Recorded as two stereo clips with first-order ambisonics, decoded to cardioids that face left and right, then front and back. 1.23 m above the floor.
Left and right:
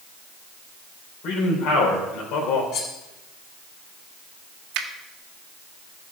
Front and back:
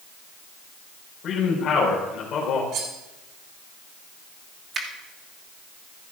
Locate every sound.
1.2 s a man speaking: 55° left, 3.5 m
2.7 s cutlery clinking: 135° left, 2.5 m
4.7 s a finger snap: 115° right, 1.5 m